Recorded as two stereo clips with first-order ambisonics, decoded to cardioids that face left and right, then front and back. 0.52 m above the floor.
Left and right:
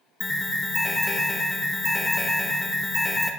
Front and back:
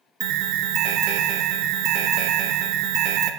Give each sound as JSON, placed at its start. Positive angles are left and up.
{"t": 0.2, "sound": "an alarm", "azimuth_deg": 170, "distance_m": 0.9}